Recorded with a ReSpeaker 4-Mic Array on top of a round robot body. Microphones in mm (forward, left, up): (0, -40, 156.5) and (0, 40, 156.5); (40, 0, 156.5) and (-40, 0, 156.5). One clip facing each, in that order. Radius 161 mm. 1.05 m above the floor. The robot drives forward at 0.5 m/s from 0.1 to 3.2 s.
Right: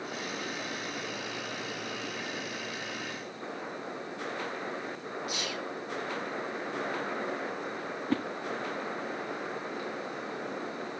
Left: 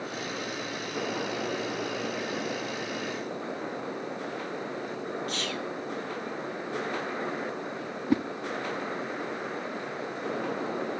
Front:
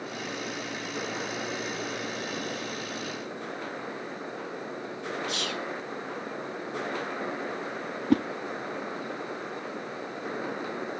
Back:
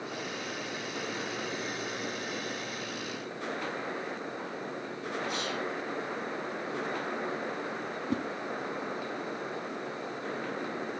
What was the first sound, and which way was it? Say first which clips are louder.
Whispering: left 3 dB, even; 10° right.